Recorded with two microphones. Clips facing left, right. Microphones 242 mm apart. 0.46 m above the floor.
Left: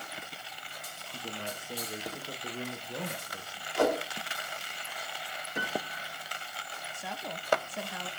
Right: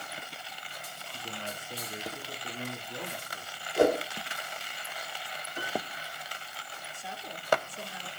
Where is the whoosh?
25° right (ahead or behind), 4.5 m.